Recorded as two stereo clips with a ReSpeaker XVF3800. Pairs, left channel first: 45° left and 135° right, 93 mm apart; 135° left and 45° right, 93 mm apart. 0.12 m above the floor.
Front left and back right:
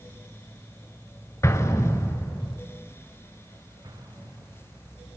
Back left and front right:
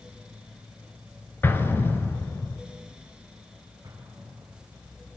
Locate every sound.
1.4 s an explosion: 80° left, 1.0 m
3.8 s an explosion: 95° right, 9.5 m